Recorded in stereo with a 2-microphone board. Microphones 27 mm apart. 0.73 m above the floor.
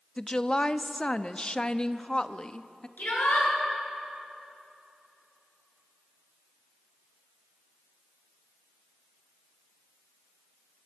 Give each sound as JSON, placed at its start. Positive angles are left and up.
{"t": 0.2, "sound": "a woman speaking", "side_deg": 30, "distance_m": 0.7}
{"t": 3.0, "sound": "a shout", "side_deg": 70, "distance_m": 9.5}